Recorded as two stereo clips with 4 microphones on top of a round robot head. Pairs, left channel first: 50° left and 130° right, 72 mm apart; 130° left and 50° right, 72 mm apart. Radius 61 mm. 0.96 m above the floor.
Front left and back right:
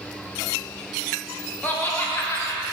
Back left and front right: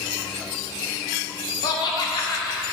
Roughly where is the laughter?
Behind left.